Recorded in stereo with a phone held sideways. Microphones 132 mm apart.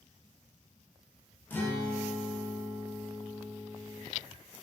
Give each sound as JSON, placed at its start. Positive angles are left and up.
{"t": 1.5, "sound": "a guitar", "side_deg": 15, "distance_m": 0.6}